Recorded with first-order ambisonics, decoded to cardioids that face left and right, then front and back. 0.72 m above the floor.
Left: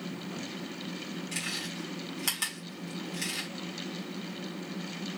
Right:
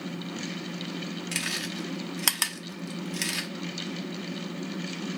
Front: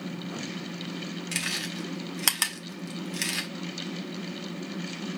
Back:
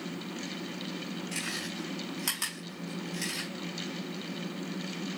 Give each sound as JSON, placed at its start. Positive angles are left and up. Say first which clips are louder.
{"t": 1.3, "sound": "chewing", "louder": "right 4 dB, front 6 dB", "azimuth_deg": -40, "distance_m": 0.8}